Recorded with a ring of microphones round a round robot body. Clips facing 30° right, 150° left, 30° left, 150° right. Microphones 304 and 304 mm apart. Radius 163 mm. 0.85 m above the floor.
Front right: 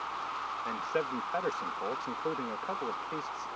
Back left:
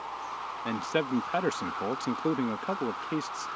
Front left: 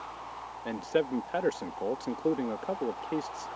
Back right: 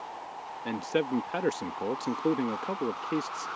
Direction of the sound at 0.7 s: 140° left.